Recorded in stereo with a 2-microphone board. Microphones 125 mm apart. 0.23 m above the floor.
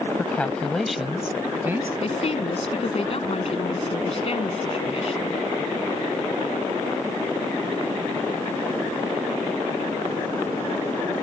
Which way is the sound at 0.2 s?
15° left (ahead or behind).